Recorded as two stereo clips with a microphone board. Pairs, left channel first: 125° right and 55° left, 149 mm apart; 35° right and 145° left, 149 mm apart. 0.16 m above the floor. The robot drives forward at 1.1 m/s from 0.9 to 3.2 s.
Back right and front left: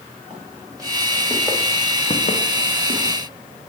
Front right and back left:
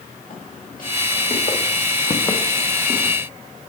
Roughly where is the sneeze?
I don't hear a sneeze.